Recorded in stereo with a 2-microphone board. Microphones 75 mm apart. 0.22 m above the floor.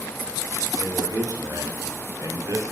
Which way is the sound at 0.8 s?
70° right (ahead or behind).